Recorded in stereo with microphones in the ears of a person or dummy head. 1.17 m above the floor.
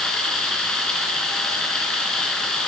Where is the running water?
5° left (ahead or behind), 3 m.